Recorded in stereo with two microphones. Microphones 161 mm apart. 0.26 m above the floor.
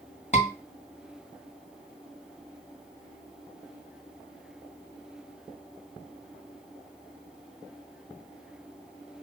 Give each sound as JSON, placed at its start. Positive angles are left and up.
{"t": 0.3, "sound": "a scream", "side_deg": 40, "distance_m": 2.0}